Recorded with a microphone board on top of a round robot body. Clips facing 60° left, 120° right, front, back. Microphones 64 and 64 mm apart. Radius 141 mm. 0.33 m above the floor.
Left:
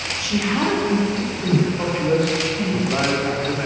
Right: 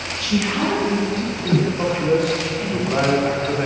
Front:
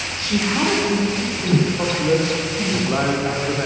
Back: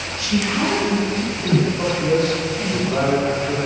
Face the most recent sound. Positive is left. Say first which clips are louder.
# right 1 dB, even
turn(degrees=-35)